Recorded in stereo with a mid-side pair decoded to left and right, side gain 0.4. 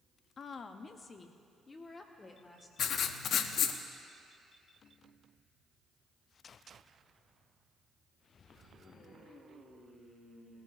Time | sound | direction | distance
0.4 | a woman speaking | 55° left | 0.8 m
2.8 | writing | 70° left | 0.8 m